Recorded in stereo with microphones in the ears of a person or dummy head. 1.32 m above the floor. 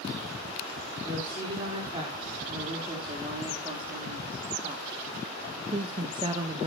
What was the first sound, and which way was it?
A woman speaking, 35° right (ahead or behind).